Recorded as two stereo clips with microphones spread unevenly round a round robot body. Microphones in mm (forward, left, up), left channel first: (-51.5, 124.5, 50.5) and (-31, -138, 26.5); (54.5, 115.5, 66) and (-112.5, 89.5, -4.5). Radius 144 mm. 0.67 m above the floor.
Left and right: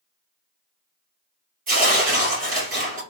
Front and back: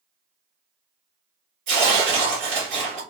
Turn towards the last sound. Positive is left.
turn(degrees=-145)